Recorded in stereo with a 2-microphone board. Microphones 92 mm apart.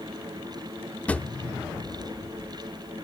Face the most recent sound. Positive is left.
turn(degrees=15)  # may be behind; listen again after turning